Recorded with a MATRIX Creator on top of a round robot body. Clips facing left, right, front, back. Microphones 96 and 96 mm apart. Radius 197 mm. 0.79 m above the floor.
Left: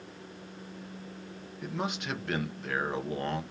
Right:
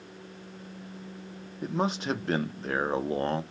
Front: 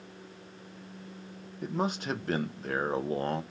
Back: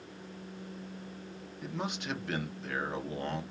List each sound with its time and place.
1.6 s a man speaking: 40° right, 0.7 m